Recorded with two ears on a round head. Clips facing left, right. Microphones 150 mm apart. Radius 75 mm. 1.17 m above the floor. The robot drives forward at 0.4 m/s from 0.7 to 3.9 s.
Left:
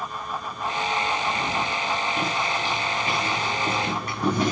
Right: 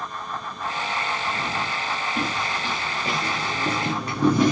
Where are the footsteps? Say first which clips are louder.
Left 1 dB; 60° right (ahead or behind), 6.5 m.